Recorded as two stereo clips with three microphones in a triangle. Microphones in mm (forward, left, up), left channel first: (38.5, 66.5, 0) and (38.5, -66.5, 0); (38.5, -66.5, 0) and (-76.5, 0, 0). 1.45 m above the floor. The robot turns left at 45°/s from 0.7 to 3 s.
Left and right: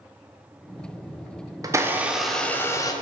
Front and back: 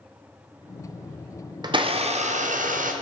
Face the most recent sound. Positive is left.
turn(degrees=150)